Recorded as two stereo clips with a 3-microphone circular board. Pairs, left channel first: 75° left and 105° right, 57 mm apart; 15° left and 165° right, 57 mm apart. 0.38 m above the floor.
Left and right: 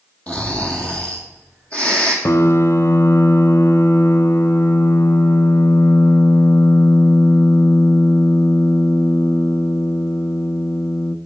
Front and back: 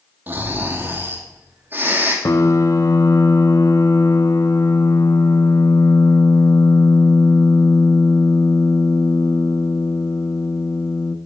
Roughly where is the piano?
Ahead left.